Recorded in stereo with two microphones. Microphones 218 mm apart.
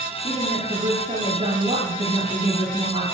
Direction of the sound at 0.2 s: 25° right (ahead or behind).